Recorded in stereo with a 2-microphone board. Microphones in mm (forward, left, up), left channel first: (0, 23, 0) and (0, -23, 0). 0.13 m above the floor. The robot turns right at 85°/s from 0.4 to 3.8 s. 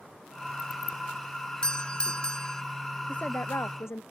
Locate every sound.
1.6 s a doorbell: 15° left (ahead or behind); by 2.6 s 10° left (ahead or behind)
3.1 s a woman speaking: 30° left; by 4.0 s 90° left